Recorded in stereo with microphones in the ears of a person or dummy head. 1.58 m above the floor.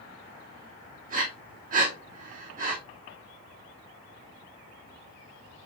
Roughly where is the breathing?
Right.